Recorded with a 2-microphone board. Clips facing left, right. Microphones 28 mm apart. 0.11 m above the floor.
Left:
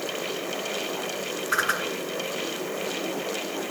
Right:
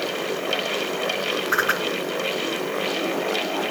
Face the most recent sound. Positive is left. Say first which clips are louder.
# right 2 dB
turn(degrees=-10)  # may be behind; listen again after turning